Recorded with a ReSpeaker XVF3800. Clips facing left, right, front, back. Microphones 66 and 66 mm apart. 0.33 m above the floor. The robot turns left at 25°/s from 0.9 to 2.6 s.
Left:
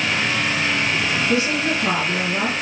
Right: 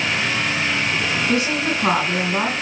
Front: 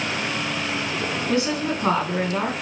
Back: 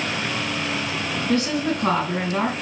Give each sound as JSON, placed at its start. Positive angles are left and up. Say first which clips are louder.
{"t": 1.3, "sound": "a woman speaking", "louder": "even, back 2 dB", "azimuth_deg": -70, "distance_m": 2.5}